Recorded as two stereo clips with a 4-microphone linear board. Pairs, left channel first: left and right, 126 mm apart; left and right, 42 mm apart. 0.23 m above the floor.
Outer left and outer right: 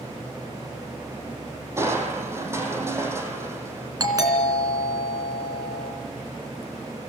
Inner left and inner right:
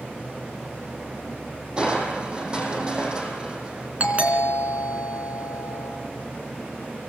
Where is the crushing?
20° right (ahead or behind), 3.5 m.